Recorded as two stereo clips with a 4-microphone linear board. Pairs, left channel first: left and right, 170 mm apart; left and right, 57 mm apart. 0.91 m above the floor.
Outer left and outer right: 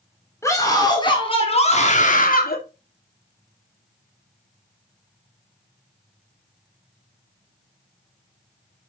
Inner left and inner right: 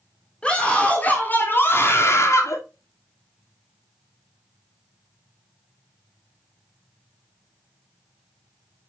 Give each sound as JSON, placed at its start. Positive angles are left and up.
{"t": 0.4, "sound": "a scream", "side_deg": 15, "distance_m": 3.0}